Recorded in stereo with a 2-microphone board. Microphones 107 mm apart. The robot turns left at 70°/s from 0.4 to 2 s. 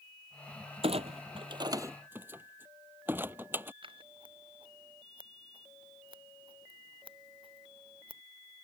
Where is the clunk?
70° right (ahead or behind); by 3.7 s 20° right (ahead or behind).